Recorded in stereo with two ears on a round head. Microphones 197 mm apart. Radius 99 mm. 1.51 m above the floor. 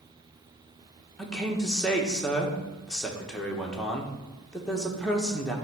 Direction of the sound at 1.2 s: 5° left (ahead or behind).